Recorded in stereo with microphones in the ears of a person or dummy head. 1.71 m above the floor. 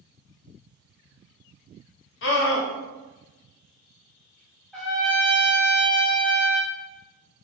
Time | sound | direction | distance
2.2 | a scream | 65° left (ahead or behind) | 0.9 m
4.7 | a trumpet | centre (ahead or behind) | 0.7 m